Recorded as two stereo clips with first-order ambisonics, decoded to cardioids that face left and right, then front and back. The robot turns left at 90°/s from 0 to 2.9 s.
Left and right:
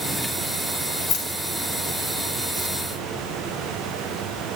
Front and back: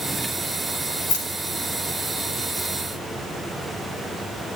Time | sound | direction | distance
1.1 | keys jangling | 40° left | 5 m